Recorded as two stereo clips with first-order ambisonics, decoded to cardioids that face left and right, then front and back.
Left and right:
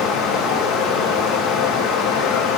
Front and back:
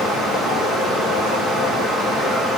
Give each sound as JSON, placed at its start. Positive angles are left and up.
{"t": 0.0, "sound": "running water", "azimuth_deg": 75, "distance_m": 2.5}